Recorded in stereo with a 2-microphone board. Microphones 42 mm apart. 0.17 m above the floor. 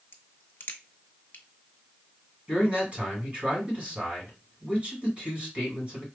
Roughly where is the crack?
Left.